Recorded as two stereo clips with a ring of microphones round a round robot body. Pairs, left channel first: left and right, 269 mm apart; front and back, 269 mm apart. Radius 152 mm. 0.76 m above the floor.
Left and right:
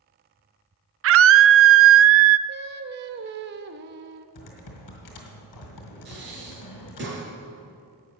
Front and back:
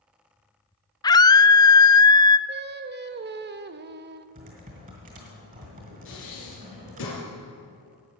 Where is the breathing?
40° right, 4 m.